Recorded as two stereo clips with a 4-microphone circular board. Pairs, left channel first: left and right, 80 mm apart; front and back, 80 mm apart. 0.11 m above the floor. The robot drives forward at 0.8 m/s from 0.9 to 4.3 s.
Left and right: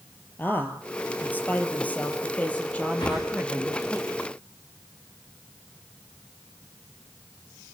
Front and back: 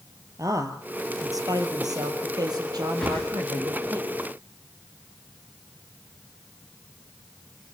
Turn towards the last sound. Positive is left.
turn(degrees=85)